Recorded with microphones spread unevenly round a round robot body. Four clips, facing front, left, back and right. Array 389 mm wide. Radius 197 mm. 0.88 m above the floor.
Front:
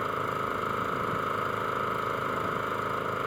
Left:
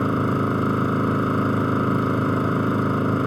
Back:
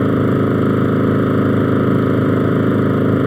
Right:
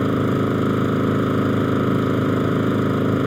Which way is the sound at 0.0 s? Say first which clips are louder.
Right 2 dB, back 16 dB; 175° right.